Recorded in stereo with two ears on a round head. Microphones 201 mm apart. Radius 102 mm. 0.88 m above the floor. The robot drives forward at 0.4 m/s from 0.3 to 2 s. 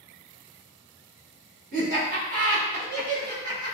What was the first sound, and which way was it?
Laughter, 40° right (ahead or behind).